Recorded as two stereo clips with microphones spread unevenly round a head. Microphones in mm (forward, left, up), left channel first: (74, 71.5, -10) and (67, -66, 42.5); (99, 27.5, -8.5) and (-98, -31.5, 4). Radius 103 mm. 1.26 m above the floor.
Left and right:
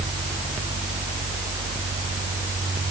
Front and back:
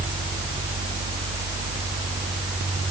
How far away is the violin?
I don't hear a violin.